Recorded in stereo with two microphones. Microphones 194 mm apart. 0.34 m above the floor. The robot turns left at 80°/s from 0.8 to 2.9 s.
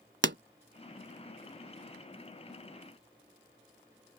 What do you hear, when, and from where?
0.2 s a pop: 65° right (ahead or behind)